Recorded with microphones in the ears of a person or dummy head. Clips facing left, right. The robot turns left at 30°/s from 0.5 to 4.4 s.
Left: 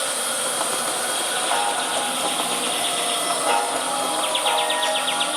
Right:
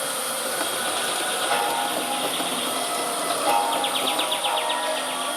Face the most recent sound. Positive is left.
turn(degrees=135)